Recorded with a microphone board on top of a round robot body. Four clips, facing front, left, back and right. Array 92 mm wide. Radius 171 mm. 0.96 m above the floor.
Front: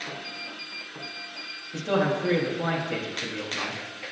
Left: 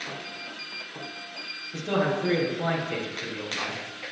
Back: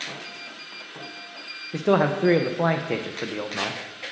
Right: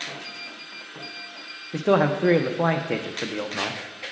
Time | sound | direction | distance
1.7 | a man speaking | 135° right | 0.5 m